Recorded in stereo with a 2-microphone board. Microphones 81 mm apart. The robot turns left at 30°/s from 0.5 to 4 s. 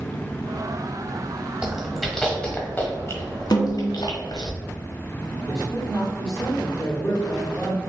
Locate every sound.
1.6 s chewing: 10° right (ahead or behind), 1.2 m; by 4.5 s 55° left (ahead or behind), 1.2 m
3.5 s a snare drum: 65° left (ahead or behind), 0.8 m; by 3.9 s 75° left (ahead or behind), 0.8 m
5.5 s a man speaking: 15° left (ahead or behind), 1.7 m